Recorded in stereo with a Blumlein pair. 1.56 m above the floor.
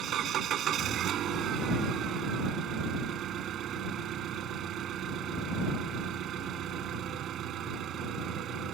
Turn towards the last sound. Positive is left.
turn(degrees=-30)